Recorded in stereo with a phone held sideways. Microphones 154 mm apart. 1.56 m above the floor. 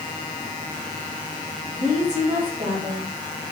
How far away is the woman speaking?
About 3.5 m.